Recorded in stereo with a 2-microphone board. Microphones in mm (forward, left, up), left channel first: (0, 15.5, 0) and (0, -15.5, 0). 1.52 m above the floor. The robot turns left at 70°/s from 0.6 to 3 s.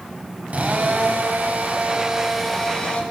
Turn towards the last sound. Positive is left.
turn(degrees=140)